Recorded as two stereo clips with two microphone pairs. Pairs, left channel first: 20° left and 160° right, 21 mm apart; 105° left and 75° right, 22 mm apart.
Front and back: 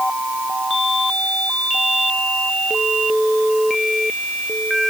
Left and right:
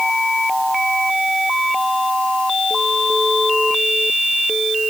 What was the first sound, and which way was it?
Only background noise.